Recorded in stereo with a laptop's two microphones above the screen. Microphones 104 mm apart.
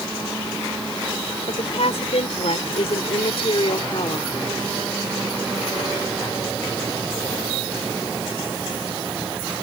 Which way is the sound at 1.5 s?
85° left.